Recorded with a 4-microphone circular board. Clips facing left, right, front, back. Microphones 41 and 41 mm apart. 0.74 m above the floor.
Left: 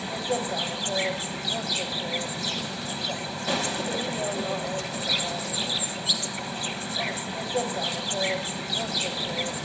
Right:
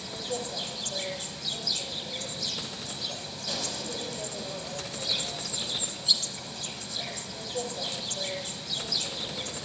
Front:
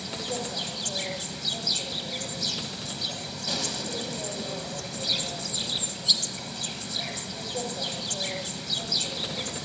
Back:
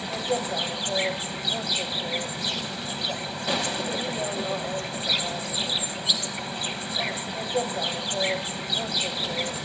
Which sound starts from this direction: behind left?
An insect, at 0.0 s.